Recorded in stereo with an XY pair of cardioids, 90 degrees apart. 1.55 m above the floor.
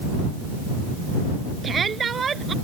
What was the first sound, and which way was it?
A shout, 45° right.